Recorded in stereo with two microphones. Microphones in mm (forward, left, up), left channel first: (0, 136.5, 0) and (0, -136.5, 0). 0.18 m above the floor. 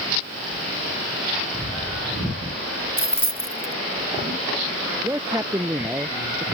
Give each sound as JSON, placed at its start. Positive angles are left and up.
{"t": 3.0, "sound": "keys jangling", "side_deg": -20}
{"t": 5.0, "sound": "a man speaking", "side_deg": -10}